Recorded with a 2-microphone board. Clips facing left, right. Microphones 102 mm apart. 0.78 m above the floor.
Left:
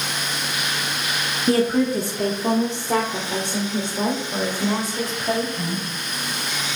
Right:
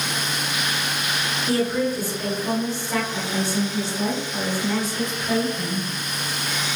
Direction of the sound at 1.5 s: 45° left (ahead or behind).